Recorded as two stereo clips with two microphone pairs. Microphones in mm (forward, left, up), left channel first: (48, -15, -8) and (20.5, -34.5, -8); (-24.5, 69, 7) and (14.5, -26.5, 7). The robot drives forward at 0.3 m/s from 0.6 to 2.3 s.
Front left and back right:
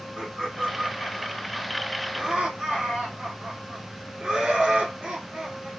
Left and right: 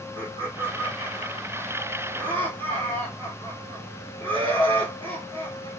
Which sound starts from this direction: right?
Laughter, at 0.2 s.